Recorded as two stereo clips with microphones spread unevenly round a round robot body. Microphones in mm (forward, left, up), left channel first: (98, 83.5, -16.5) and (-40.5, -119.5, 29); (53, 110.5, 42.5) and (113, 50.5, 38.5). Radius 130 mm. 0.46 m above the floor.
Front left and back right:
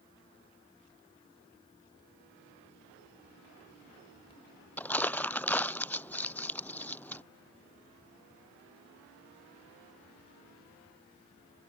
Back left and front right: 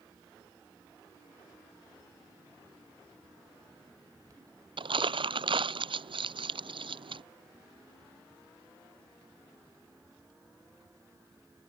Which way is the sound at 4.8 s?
30° right.